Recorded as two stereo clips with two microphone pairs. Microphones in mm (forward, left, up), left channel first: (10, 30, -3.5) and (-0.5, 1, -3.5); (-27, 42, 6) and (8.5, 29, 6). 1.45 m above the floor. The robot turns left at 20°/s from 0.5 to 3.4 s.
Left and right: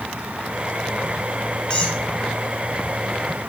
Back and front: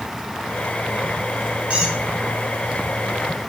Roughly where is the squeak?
Ahead.